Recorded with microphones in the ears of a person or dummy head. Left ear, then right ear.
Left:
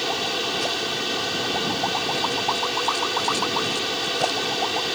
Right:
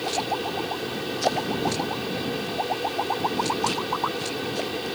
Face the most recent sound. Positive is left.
turn(degrees=40)  # may be behind; listen again after turning